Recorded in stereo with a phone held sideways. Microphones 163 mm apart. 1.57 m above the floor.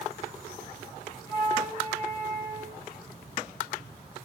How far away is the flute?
About 7.5 m.